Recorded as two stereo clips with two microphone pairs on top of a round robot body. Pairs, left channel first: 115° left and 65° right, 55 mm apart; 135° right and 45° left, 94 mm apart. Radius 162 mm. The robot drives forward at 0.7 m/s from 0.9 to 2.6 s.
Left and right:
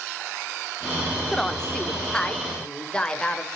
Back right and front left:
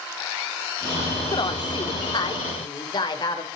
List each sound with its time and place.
1.3 s a woman speaking: 170° right, 1.2 m; by 3.5 s 175° right, 2 m